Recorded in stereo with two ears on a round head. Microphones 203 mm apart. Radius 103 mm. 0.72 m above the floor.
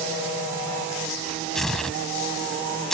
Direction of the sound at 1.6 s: Centre (ahead or behind).